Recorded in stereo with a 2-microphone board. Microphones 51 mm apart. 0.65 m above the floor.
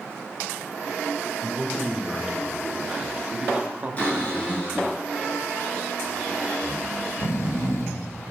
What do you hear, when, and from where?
1.4 s a man speaking: centre (ahead or behind), 1.9 m; by 5.0 s 35° right (ahead or behind), 0.8 m
4.0 s a cupboard door: 25° left (ahead or behind), 4 m
6.6 s snoring: 55° left (ahead or behind), 0.8 m